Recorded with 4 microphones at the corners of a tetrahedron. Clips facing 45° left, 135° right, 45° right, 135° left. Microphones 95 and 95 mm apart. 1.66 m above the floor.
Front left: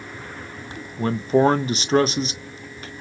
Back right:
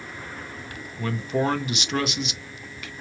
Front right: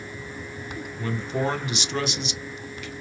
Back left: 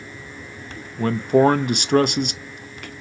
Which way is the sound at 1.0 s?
100° left.